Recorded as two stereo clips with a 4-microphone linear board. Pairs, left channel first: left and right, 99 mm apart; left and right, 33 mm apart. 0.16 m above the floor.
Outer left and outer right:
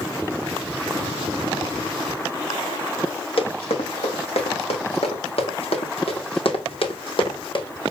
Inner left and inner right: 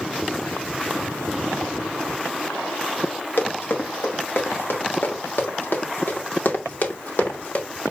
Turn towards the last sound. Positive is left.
turn(degrees=55)  # may be behind; listen again after turning